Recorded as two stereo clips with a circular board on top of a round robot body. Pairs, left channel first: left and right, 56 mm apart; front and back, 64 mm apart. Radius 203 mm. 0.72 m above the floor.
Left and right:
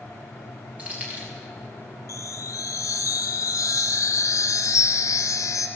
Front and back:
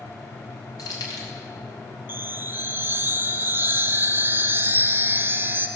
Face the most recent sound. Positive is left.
turn(degrees=115)